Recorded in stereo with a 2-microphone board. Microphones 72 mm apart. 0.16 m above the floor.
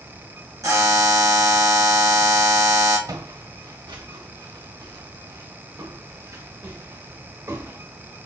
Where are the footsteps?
65° right (ahead or behind), 1.3 m; by 7.8 s 45° right (ahead or behind), 3 m.